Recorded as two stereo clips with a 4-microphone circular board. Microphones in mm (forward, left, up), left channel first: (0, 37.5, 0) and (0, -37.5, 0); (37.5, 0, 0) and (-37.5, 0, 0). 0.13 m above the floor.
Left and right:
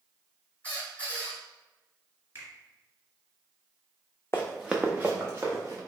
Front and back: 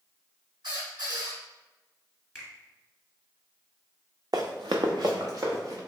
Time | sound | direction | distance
0.6 | a squeak | 160° left | 1.7 m
2.4 | a finger snap | 95° right | 1.6 m
4.3 | running footsteps | 150° left | 0.5 m